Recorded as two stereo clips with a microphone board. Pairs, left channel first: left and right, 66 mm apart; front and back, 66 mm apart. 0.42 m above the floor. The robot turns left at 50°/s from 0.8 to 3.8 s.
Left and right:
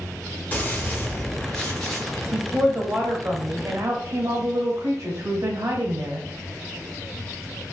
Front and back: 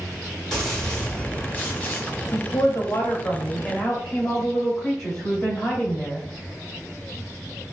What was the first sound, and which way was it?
A gunshot, 70° left.